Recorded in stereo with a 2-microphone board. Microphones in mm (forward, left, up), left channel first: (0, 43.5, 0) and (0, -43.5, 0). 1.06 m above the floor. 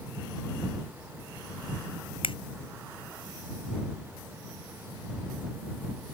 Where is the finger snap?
85° left.